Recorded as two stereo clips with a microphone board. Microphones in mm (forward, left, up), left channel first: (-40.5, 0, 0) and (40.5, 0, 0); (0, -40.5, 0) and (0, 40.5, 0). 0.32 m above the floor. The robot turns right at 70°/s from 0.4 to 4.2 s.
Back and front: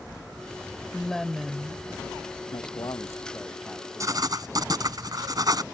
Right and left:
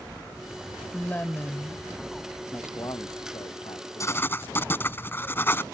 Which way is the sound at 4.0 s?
45° right.